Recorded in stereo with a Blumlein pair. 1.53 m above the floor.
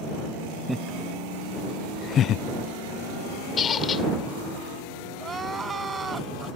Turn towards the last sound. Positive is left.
turn(degrees=-15)